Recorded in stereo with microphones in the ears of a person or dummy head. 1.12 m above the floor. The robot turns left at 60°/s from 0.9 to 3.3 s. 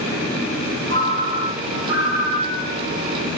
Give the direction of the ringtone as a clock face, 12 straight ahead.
7 o'clock.